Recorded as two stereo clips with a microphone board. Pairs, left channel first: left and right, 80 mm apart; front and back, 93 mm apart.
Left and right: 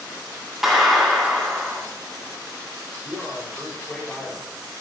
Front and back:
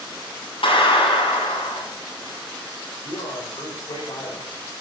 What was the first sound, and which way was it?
A clap, 5° right.